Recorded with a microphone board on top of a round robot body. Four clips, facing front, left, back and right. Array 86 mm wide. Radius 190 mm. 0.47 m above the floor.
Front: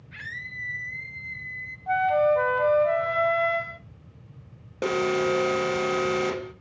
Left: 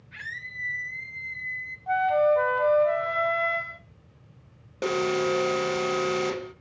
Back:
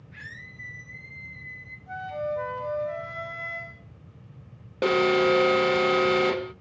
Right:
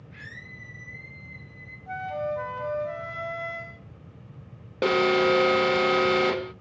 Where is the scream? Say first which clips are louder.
Left 7 dB, front 6 dB; 30° left, 2.5 m; by 1.8 s 60° left, 2 m.